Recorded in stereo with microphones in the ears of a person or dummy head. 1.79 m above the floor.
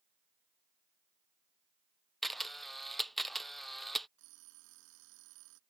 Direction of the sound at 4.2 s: 80° right.